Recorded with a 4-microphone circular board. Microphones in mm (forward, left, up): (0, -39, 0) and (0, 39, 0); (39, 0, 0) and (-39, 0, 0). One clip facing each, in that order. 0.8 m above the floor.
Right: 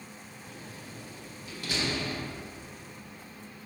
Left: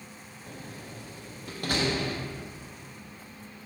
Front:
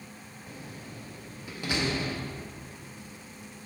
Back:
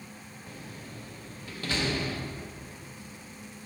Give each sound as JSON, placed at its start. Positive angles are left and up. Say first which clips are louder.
{"t": 0.5, "sound": "a door slam", "louder": "left 4 dB, front 1 dB", "azimuth_deg": 70, "distance_m": 0.9}